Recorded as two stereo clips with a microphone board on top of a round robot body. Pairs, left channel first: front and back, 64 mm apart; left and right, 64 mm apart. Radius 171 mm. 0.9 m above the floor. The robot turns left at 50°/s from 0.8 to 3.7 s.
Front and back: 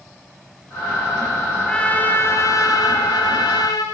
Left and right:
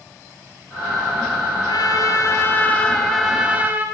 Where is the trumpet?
75° left, 2 m; by 3.9 s 25° right, 2 m.